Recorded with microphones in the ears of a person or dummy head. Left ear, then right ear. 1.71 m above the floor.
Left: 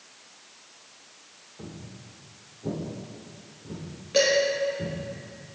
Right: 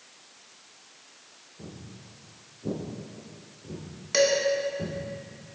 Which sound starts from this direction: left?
Footsteps, at 1.6 s.